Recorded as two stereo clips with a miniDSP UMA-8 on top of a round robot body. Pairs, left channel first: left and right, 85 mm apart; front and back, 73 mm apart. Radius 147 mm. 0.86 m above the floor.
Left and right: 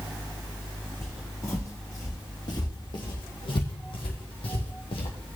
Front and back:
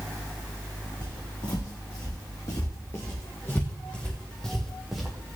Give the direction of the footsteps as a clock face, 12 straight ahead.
11 o'clock.